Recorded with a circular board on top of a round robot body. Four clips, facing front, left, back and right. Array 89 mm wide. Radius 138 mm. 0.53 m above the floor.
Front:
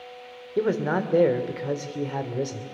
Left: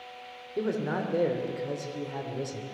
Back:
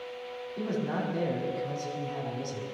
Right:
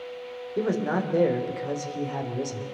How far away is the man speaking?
About 2.5 m.